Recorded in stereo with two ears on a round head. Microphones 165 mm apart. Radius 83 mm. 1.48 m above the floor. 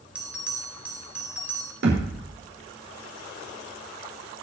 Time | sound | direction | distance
0.1 | a bell | 10° right (ahead or behind) | 3 m
1.8 | a thud | 65° right (ahead or behind) | 5.5 m